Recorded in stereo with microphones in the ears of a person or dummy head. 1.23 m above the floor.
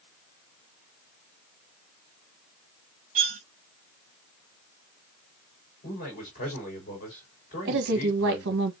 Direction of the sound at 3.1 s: 40° right (ahead or behind).